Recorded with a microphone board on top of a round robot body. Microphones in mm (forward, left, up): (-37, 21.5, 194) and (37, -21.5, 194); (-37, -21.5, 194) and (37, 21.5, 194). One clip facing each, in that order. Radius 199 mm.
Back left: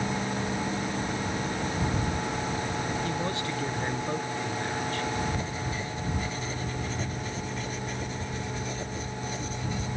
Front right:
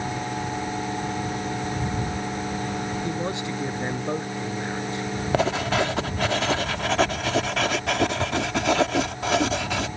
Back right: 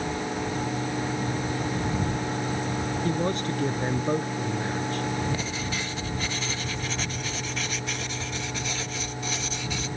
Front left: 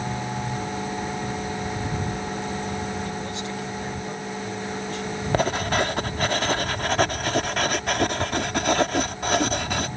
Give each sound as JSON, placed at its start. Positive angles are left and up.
{"t": 3.0, "sound": "a man speaking", "azimuth_deg": -100}
{"t": 5.3, "sound": "writing", "azimuth_deg": -5}